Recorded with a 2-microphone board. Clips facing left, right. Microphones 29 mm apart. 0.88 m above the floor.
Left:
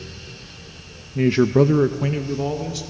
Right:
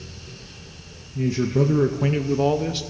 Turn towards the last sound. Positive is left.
turn(degrees=-35)  # may be behind; listen again after turning